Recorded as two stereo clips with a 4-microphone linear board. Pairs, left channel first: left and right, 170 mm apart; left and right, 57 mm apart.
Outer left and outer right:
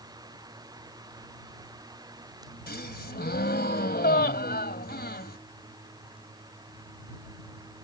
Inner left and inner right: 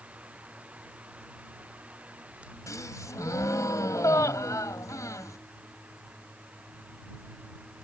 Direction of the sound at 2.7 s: 75° left (ahead or behind).